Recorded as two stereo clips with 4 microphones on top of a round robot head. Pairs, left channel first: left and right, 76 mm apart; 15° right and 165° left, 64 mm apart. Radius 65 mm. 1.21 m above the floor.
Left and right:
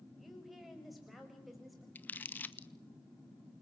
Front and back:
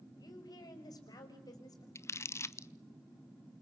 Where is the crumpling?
25° left, 1.0 m.